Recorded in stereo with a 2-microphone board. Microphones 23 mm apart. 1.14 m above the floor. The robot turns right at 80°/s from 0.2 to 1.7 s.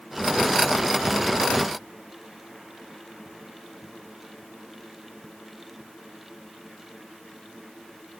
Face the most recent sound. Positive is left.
No sound to turn to.